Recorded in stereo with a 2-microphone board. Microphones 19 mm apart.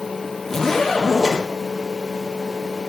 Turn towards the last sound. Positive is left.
turn(degrees=15)  # may be behind; listen again after turning